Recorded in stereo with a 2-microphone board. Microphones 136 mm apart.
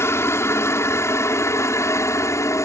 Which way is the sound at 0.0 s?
20° left (ahead or behind).